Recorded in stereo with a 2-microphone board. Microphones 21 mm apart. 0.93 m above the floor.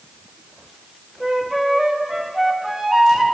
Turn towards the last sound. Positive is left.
turn(degrees=-25)  # may be behind; listen again after turning